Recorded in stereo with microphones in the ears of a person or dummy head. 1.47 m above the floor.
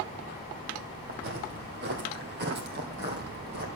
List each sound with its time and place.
1.1 s footsteps: 50° right (ahead or behind), 2.5 m